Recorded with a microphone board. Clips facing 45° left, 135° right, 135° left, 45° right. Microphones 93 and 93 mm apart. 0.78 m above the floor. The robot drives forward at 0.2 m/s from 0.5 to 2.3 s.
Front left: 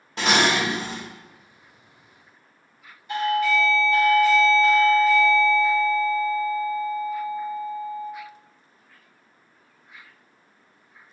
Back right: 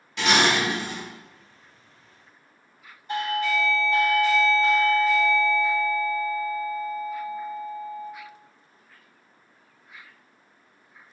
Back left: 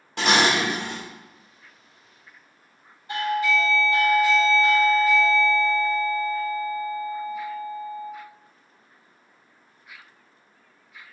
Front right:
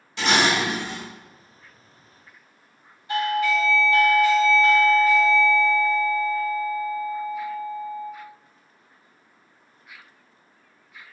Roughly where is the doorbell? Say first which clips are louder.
Front left 4 dB, front right 1 dB; behind.